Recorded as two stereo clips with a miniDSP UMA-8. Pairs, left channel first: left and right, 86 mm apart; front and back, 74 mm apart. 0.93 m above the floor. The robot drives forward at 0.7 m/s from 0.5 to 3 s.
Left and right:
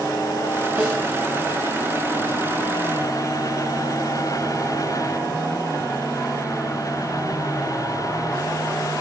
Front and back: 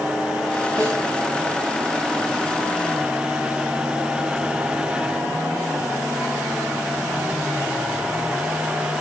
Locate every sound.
0.8 s a snare drum: 160° right, 3.5 m; by 1.0 s 165° right, 3.5 m